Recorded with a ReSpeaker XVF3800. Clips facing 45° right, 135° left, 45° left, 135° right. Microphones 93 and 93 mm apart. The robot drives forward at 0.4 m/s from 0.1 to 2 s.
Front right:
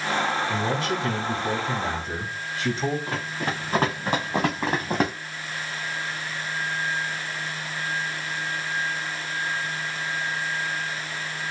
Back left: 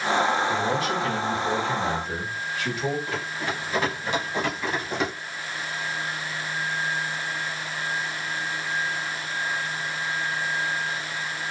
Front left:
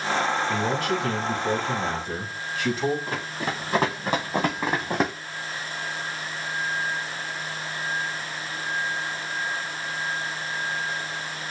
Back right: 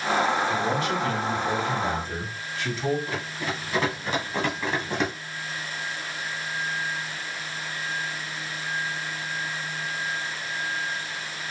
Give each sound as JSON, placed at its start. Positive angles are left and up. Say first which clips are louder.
{"t": 0.5, "sound": "a man speaking", "louder": "back left 1 dB, even", "azimuth_deg": 10, "distance_m": 3.0}
{"t": 3.1, "sound": "running footsteps", "louder": "front right 1 dB, front left 1 dB", "azimuth_deg": 5, "distance_m": 3.0}